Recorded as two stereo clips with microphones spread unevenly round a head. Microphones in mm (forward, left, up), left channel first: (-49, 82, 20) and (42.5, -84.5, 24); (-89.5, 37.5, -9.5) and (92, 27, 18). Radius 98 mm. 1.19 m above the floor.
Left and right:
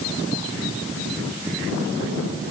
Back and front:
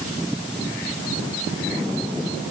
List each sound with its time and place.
Only background noise.